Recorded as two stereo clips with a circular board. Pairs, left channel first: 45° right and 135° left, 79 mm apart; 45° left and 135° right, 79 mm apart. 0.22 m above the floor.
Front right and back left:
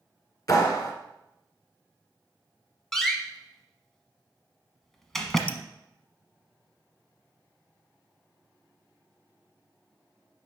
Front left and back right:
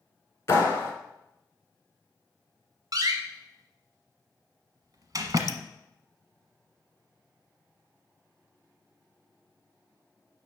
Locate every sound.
0.5 s a clap: 10° right, 2 m
2.9 s a door slam: 130° right, 1.1 m
5.5 s dripping: 20° left, 0.5 m